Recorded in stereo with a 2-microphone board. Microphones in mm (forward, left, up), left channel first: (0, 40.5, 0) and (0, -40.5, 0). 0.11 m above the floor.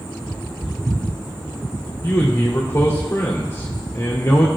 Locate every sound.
2.0 s a man speaking: 30° left (ahead or behind), 1.8 m